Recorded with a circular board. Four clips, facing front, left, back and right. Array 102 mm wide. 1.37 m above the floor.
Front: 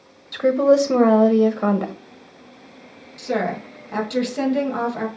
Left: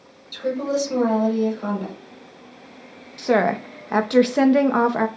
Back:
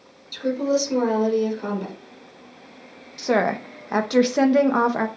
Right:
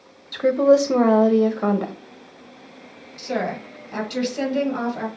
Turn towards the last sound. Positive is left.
turn(degrees=125)